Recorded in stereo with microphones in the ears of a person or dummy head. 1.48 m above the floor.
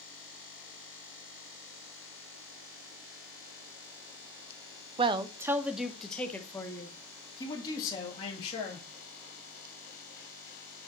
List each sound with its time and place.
5.0 s a man speaking: 30° right (ahead or behind), 0.7 m; by 8.8 s 30° left (ahead or behind), 2.5 m